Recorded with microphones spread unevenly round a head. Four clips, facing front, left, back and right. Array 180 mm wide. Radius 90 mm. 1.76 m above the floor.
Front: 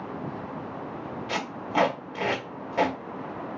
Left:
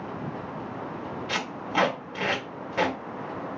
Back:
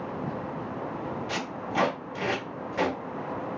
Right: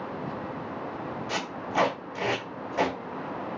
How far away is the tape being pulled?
About 1.7 m.